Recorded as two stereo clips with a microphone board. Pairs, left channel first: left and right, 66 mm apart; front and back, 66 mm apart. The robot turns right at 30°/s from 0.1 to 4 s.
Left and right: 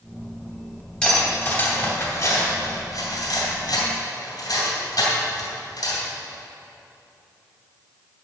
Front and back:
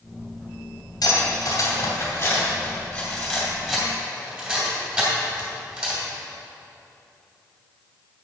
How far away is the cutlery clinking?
About 2.5 m.